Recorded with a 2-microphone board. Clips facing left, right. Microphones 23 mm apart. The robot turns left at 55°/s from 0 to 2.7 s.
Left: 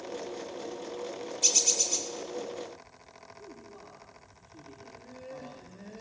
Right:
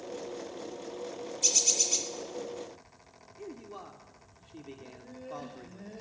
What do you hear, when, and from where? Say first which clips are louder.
1.4 s a bird: left 1 dB; 20° left, 2 m; by 2.1 s 20° right, 2 m
3.4 s a man speaking: right 7 dB; 50° right (ahead or behind), 2.5 m
4.8 s laughter: even; centre (ahead or behind), 3.5 m